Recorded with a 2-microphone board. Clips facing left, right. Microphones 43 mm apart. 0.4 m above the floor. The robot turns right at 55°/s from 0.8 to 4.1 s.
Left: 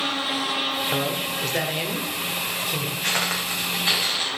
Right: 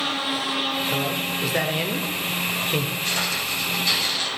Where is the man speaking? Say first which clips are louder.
Even; 10° left (ahead or behind), 1.6 m; by 2.9 s 35° right (ahead or behind), 1.6 m.